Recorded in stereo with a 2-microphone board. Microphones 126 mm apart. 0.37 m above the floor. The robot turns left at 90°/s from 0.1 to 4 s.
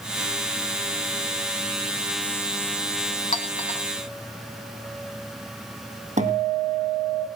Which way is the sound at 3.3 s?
70° left (ahead or behind).